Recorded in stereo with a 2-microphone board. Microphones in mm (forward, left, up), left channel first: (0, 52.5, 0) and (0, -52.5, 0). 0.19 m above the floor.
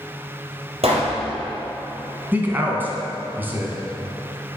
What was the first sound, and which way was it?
A pop, 70° right (ahead or behind).